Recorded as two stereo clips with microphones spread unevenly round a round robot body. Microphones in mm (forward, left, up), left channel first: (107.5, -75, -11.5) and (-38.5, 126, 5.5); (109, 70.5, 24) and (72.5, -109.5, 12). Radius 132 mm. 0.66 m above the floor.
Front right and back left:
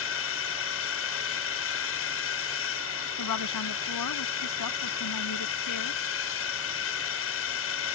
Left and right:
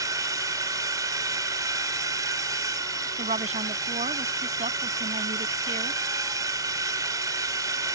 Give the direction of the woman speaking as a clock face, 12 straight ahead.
2 o'clock.